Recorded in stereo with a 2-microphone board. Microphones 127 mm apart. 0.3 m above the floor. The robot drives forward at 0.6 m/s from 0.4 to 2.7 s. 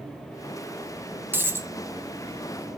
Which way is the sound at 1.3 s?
15° right (ahead or behind).